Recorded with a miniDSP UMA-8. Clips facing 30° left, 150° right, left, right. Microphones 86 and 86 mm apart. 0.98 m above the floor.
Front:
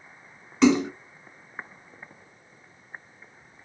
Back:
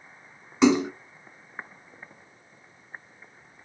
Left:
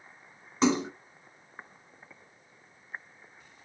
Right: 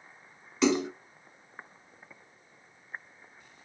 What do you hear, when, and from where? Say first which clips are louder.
0.6 s a splash: even, even; 140° left, 1.5 m